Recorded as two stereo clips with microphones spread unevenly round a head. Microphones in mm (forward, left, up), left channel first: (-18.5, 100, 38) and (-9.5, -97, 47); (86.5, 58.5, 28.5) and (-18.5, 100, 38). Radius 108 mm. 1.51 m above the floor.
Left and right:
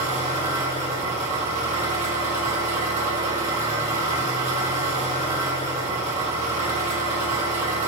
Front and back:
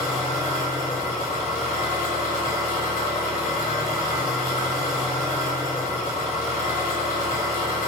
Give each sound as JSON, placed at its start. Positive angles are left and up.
{"t": 0.0, "sound": "an engine running", "azimuth_deg": -30, "distance_m": 1.2}